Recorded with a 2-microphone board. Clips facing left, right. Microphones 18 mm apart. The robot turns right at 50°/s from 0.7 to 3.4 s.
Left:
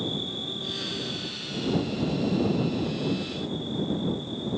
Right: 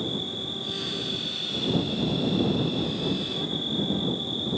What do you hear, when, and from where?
0.0 s an insect: 175° right; by 4.6 s 40° right